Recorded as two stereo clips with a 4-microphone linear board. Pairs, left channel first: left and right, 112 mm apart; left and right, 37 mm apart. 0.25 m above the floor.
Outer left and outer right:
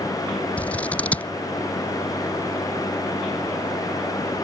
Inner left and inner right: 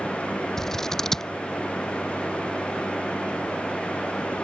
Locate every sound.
0.6 s scissors: 10° left (ahead or behind)